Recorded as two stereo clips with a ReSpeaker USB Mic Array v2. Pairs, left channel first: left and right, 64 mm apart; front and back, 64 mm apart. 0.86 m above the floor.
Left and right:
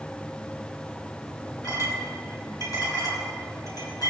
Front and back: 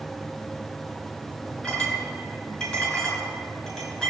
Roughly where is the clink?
Left.